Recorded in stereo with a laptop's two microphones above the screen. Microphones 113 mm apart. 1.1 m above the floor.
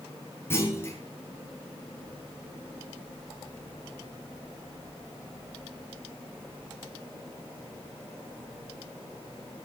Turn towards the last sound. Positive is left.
turn(degrees=20)  # may be behind; listen again after turning